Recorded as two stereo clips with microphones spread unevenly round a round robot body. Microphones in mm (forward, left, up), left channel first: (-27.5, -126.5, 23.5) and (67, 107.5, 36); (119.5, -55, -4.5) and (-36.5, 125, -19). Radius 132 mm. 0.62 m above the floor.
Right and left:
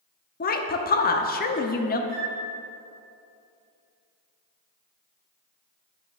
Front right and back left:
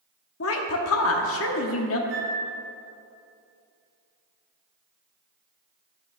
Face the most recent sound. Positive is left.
turn(degrees=180)